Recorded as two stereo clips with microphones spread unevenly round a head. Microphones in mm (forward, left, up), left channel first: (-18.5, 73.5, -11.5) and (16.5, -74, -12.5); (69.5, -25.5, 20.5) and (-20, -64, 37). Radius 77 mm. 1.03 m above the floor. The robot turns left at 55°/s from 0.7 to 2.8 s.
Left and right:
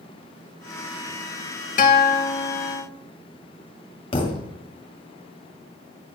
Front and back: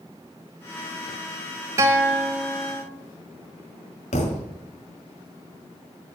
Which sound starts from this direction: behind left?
A guitar, at 1.8 s.